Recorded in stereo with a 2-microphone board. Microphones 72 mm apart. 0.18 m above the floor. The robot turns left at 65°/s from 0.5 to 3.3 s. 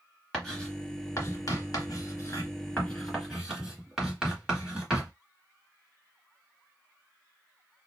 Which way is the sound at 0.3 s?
5° left (ahead or behind).